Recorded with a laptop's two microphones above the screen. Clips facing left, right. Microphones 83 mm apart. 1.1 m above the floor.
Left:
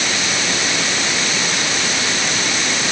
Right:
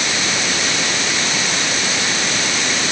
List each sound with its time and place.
Only background noise.